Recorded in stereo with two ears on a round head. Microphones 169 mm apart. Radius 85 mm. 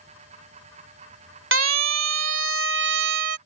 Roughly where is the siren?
Right.